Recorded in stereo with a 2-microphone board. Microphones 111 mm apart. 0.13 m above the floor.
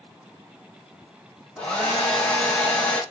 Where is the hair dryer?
10° left (ahead or behind), 3 m.